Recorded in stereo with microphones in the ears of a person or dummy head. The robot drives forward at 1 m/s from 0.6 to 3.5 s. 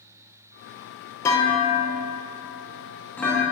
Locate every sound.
1.2 s a clunk: 15° left (ahead or behind), 0.8 m; by 3.4 s 5° left (ahead or behind), 1.9 m